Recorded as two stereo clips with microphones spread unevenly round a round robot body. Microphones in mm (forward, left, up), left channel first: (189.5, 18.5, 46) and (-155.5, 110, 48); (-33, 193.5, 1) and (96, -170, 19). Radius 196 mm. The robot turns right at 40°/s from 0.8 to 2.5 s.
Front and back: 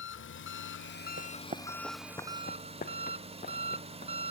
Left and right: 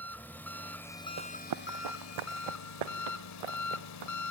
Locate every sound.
0.0 s an engine running: 30° left, 1.0 m; by 4.3 s 95° left, 1.0 m
1.2 s running footsteps: 130° right, 0.8 m; by 4.1 s 90° right, 3 m